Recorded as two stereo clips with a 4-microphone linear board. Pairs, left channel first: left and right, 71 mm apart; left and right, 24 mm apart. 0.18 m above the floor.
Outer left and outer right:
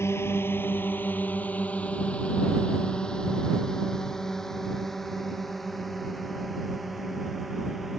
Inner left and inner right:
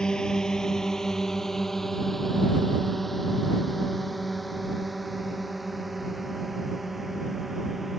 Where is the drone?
35° left (ahead or behind); by 8.0 s 5° right (ahead or behind).